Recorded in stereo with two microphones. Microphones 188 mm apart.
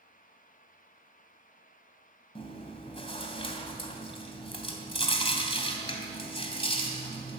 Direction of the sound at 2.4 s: 30° left (ahead or behind).